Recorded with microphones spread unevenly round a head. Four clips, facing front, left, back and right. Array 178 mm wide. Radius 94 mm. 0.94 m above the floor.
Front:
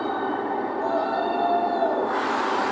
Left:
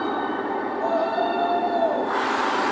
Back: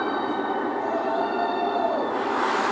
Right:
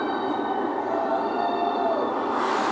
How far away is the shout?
About 9.5 m.